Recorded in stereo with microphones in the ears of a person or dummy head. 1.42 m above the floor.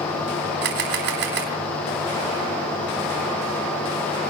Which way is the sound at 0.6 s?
60° right (ahead or behind).